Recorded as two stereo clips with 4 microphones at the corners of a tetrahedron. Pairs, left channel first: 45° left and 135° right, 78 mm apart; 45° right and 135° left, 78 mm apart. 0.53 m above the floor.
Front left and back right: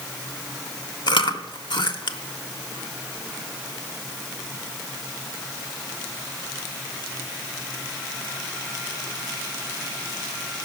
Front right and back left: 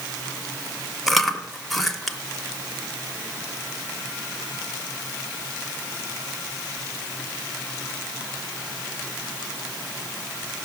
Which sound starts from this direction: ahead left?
Chewing, at 1.1 s.